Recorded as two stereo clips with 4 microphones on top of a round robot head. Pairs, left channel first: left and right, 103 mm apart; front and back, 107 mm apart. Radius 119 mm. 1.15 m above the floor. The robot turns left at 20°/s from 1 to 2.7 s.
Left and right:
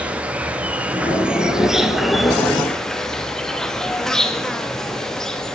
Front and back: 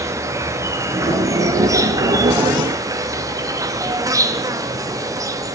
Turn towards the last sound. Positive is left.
turn(degrees=170)